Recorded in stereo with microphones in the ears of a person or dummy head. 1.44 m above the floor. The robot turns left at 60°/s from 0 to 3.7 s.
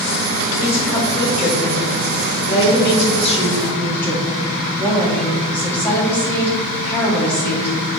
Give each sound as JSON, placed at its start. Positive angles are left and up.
{"t": 0.6, "sound": "a woman speaking", "azimuth_deg": -170, "distance_m": 2.5}